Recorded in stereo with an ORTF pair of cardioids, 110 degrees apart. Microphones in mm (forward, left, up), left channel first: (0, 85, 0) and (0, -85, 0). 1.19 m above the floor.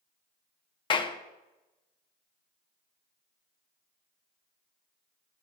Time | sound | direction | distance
0.9 | a clap | 30° left | 0.6 m